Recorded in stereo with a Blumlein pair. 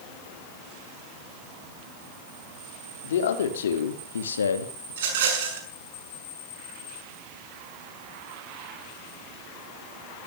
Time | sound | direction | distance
3.0 | a man speaking | 60° left | 3 m
4.9 | a rattle | 55° right | 6 m